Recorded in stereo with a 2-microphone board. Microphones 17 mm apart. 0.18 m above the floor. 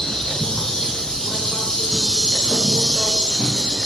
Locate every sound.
0.0 s an insect: 65° left (ahead or behind), 0.8 m